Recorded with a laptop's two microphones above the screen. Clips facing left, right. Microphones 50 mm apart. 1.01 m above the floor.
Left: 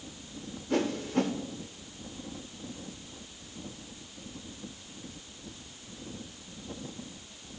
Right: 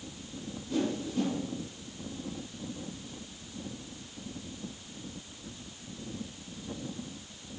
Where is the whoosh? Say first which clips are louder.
Left 3 dB; 60° left (ahead or behind), 1.4 m.